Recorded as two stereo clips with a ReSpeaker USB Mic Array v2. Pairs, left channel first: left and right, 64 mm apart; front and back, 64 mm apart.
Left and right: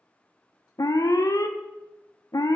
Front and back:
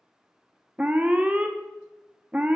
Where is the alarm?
110° left, 0.5 m.